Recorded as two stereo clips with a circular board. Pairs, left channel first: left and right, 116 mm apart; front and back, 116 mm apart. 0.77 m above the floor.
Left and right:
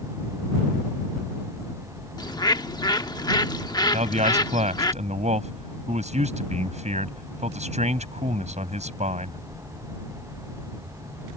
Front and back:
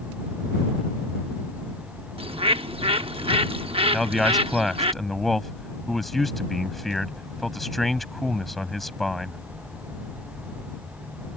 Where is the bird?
145° left.